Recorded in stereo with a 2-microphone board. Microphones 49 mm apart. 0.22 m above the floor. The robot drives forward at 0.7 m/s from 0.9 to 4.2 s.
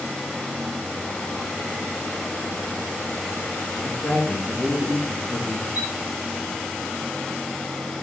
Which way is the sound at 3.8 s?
30° left (ahead or behind).